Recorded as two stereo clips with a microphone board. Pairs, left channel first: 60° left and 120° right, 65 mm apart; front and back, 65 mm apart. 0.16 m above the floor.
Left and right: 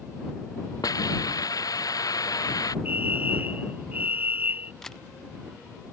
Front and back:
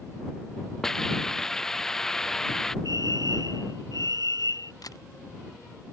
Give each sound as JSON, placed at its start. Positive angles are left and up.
{"t": 0.8, "sound": "a hiss", "azimuth_deg": 85}
{"t": 2.9, "sound": "a fire alarm", "azimuth_deg": 180}
{"t": 4.8, "sound": "a camera shutter", "azimuth_deg": -20}